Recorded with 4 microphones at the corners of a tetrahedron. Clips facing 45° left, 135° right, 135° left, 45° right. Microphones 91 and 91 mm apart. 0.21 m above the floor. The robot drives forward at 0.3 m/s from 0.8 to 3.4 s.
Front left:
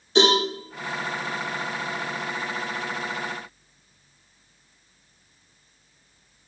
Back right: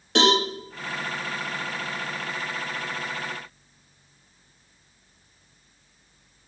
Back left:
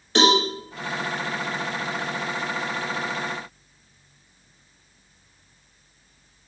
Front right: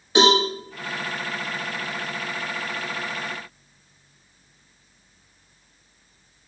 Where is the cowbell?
125° right, 4.5 m.